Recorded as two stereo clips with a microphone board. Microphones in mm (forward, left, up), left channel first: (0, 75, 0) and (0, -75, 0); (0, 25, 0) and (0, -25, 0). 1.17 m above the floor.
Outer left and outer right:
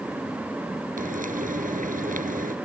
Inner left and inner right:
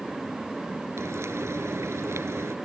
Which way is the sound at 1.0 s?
65° right (ahead or behind).